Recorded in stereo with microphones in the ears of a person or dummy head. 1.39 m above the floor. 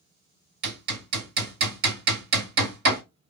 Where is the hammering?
60° right (ahead or behind), 1.7 m.